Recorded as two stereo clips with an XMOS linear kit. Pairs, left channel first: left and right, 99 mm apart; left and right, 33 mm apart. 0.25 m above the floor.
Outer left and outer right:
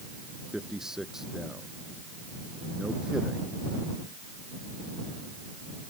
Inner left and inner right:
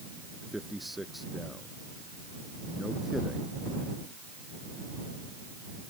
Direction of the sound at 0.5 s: 5° right (ahead or behind).